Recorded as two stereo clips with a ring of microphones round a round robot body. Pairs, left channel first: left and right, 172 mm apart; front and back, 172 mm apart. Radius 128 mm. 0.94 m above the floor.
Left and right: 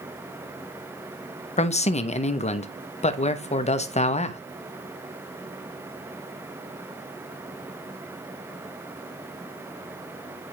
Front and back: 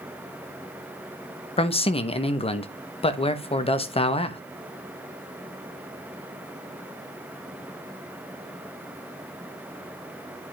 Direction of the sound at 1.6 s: 50° left.